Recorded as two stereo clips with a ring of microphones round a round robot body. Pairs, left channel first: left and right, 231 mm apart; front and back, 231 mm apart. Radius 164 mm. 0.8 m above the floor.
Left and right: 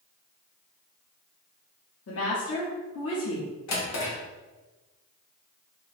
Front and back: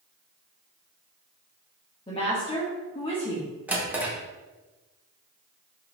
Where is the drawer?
95° left, 1.1 m.